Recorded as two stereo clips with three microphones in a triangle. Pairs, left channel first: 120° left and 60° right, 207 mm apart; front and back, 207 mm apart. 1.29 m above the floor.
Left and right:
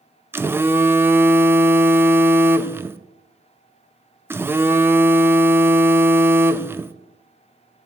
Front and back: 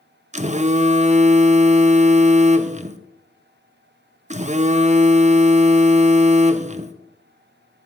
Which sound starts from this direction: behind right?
A phone buzzing, at 0.3 s.